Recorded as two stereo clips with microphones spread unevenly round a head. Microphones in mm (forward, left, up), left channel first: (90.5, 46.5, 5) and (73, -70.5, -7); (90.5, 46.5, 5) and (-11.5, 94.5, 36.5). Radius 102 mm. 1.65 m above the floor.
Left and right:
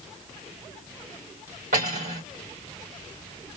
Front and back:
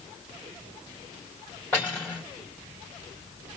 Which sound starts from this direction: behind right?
Cutlery clinking, at 1.7 s.